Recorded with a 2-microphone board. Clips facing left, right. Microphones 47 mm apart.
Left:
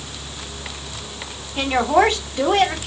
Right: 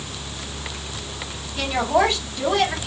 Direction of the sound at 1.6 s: 50° left (ahead or behind).